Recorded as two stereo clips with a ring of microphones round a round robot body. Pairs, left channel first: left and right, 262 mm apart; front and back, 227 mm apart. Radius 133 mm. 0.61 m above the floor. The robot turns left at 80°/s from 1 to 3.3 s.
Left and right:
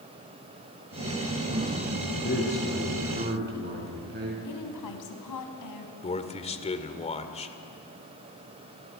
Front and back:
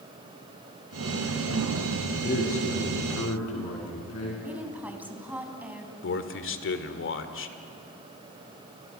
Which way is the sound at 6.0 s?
25° left.